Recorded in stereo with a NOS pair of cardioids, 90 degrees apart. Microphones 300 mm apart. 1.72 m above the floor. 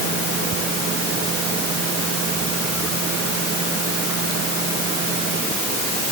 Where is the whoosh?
No whoosh in this recording.